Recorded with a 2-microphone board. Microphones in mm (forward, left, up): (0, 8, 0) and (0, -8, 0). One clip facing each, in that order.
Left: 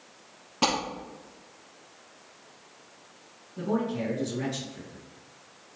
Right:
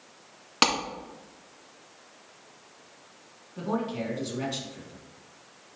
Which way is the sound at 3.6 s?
50° right (ahead or behind).